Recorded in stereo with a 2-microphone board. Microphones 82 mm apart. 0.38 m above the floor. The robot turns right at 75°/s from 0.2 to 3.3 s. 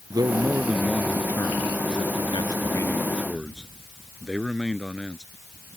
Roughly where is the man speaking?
Ahead right.